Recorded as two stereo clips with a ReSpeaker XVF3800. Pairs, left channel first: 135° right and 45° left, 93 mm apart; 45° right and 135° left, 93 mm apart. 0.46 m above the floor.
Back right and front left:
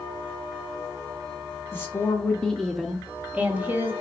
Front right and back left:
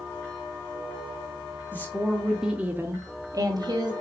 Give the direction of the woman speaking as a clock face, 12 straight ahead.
3 o'clock.